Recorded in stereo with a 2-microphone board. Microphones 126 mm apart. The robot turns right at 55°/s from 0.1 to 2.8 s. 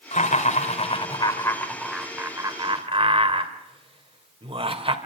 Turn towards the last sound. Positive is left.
turn(degrees=-50)  # may be behind; listen again after turning